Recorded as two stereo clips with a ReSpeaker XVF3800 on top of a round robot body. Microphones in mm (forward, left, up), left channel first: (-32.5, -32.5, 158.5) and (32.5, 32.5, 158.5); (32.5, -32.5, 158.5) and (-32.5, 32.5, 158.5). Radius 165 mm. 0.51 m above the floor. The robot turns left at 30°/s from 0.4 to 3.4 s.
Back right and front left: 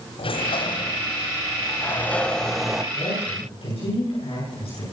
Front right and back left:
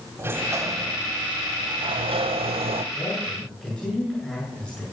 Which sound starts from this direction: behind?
A sliding door, at 0.2 s.